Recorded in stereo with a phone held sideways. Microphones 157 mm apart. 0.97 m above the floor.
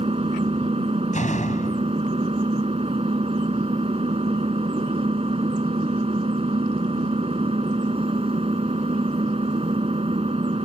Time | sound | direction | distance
0.0 | an engine running | 40° right (ahead or behind) | ?
1.1 | a door slam | 50° left (ahead or behind) | ?